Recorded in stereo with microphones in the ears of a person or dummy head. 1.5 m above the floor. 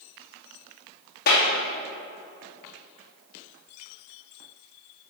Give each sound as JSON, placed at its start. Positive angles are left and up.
{"t": 1.3, "sound": "a clap", "side_deg": 50, "distance_m": 2.5}